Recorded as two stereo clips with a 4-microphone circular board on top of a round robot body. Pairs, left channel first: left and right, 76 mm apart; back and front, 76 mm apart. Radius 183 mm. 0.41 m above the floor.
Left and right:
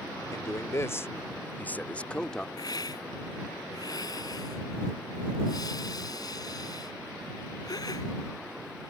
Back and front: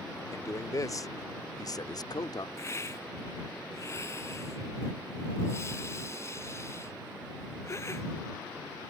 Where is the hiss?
125° left.